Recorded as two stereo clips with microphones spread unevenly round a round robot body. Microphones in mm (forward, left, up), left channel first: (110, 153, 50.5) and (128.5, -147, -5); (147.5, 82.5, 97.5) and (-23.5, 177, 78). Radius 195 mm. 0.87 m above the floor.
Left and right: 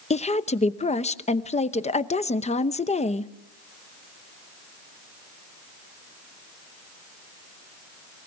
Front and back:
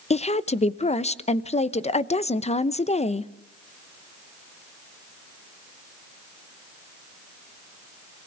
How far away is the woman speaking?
About 1.1 m.